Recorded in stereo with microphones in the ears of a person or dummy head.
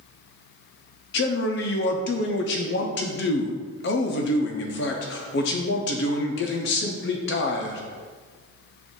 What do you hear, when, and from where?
1.1 s a man speaking: 60° left (ahead or behind), 0.6 m